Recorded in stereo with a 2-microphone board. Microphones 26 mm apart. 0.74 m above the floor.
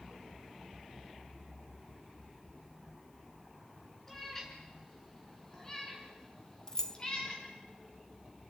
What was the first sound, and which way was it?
A cat meowing, 15° left (ahead or behind).